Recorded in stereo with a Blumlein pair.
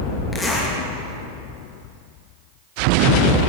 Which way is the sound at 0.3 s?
15° left.